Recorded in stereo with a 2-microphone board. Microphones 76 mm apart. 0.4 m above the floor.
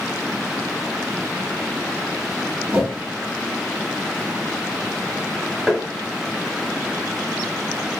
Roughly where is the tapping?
Centre.